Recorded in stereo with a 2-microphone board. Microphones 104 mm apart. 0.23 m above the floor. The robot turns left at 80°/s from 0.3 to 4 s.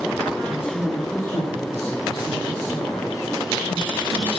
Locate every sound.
0.5 s a woman speaking: 30° left, 6.5 m; by 4.3 s 105° left, 6.5 m